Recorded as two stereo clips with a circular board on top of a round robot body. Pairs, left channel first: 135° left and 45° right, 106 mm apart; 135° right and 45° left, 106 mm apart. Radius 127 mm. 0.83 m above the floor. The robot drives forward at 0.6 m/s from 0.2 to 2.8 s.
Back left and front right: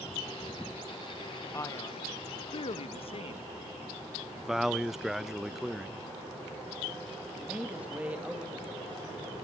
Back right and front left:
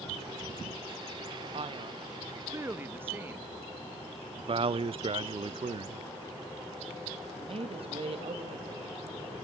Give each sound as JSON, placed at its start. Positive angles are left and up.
{"t": 1.5, "sound": "a man speaking", "azimuth_deg": 70, "distance_m": 1.1}
{"t": 4.4, "sound": "a man speaking", "azimuth_deg": 40, "distance_m": 0.6}
{"t": 7.3, "sound": "a man speaking", "azimuth_deg": 30, "distance_m": 1.9}